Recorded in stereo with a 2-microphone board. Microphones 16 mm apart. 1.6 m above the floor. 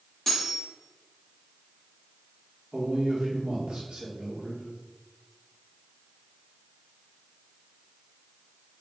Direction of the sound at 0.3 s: 15° left (ahead or behind).